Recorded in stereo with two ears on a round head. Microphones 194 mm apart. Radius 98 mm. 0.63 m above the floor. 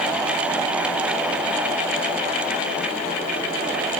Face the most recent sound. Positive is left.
No sound to turn to.